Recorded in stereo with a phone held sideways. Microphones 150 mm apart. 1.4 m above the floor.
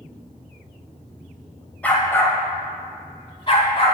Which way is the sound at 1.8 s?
10° left (ahead or behind).